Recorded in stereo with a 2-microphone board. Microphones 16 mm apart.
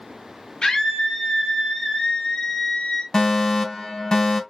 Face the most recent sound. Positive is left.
turn(degrees=35)  # may be behind; listen again after turning